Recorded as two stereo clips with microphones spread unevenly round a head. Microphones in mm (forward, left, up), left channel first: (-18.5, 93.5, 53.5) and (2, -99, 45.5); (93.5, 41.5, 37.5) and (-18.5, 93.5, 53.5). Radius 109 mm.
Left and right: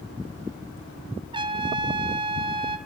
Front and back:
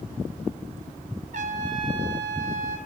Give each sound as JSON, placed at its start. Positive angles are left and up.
{"t": 1.3, "sound": "a trumpet", "azimuth_deg": -150, "distance_m": 0.5}